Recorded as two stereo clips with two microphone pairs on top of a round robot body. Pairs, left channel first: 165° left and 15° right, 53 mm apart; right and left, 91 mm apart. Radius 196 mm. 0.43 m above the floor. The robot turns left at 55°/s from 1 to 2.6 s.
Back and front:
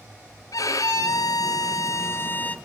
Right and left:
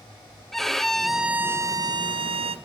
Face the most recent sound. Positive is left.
turn(degrees=95)